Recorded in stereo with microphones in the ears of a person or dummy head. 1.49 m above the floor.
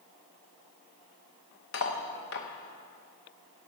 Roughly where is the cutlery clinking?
Left.